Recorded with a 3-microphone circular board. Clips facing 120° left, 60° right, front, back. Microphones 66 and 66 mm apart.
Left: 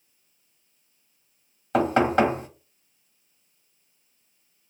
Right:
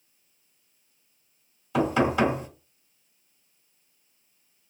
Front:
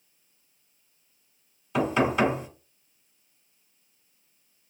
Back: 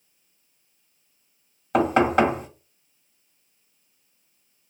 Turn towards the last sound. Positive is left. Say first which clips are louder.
# left 3 dB, back 5 dB
turn(degrees=150)